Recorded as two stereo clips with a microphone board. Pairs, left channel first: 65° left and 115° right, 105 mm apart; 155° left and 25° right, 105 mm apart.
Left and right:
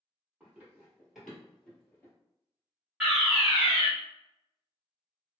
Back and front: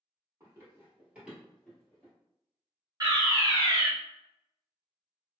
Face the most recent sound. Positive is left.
turn(degrees=-30)